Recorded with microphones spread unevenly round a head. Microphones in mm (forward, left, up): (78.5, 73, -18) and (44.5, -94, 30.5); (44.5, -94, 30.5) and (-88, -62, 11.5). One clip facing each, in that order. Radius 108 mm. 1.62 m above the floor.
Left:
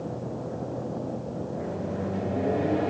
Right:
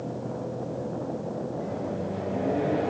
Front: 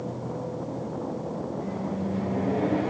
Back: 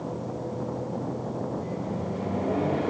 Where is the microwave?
5° left, 3.5 m.